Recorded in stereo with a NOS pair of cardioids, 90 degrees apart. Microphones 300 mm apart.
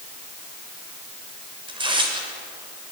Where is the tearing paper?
15° right, 6.5 m.